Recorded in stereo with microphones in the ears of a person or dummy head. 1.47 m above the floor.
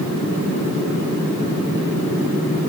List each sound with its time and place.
Only background noise.